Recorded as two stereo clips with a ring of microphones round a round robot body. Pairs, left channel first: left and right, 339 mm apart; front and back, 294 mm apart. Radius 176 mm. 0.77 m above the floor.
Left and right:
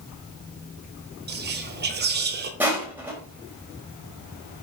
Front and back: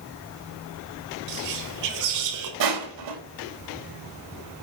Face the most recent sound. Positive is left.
turn(degrees=-175)